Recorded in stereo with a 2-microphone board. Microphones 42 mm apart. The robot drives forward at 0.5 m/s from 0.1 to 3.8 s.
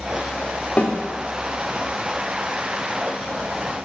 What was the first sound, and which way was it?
A snare drum, 35° left (ahead or behind).